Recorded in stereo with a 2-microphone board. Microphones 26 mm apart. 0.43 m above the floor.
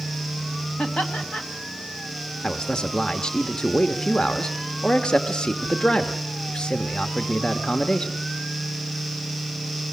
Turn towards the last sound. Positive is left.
turn(degrees=30)  # may be behind; listen again after turning